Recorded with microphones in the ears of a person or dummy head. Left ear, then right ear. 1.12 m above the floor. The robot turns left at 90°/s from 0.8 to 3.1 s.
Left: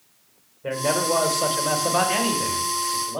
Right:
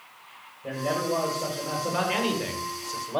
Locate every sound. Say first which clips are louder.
0.6 s a man speaking: left 5 dB; 115° left, 1.5 m; by 3.2 s 95° right, 1.5 m